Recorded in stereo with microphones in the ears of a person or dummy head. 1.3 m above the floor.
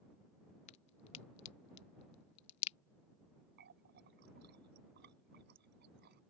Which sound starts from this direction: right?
A running tap, at 3.6 s.